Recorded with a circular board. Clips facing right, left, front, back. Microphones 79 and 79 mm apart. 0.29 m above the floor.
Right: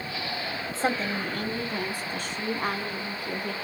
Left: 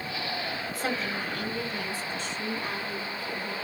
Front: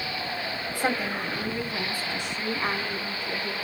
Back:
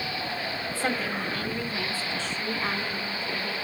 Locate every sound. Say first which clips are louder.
0.7 s a woman speaking: right 5 dB, front 2 dB; 60° right, 1.6 m; by 3.5 s 75° right, 4 m